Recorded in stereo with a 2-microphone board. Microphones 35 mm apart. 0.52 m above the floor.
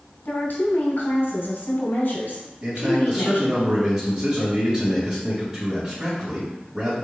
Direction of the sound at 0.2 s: 70° left (ahead or behind).